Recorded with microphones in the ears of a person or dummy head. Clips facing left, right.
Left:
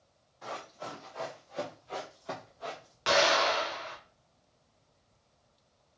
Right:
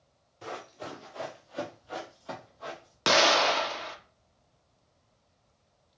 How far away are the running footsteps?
About 1.3 m.